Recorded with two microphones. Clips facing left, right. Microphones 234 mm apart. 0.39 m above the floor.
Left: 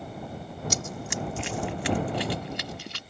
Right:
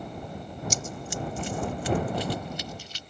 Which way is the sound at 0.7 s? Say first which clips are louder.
Left 2 dB; 70° left (ahead or behind).